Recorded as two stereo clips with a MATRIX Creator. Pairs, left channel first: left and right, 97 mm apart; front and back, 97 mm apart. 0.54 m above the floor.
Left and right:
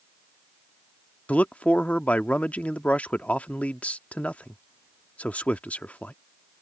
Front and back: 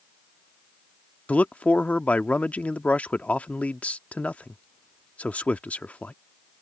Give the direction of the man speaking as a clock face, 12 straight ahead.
10 o'clock.